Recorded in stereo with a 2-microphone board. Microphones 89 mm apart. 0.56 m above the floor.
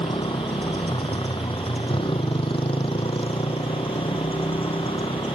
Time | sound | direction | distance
0.0 | a motorcycle | 75° left (ahead or behind) | ?